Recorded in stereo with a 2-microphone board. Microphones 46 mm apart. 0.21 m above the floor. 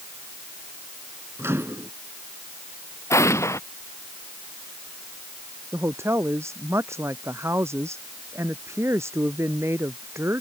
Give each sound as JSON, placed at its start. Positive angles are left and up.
{"t": 1.4, "sound": "a microwave", "side_deg": -60}
{"t": 3.1, "sound": "an explosion", "side_deg": 80}
{"t": 5.7, "sound": "a woman speaking", "side_deg": -65}